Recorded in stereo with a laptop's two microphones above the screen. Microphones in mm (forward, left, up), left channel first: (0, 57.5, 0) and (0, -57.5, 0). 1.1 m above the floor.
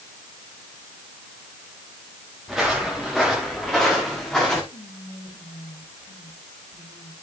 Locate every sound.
2.5 s footsteps: centre (ahead or behind), 4.5 m; by 4.6 s 5° left (ahead or behind), 5.5 m
4.7 s whispering: 80° left, 6.5 m